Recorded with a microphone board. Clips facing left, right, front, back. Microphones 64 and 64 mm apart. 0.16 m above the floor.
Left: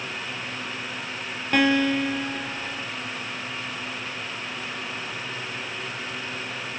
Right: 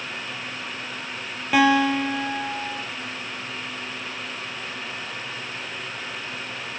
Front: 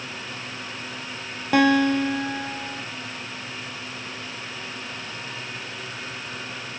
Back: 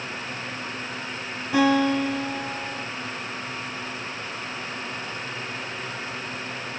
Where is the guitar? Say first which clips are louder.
Right 3 dB, front 2 dB; 5° right, 1.6 m.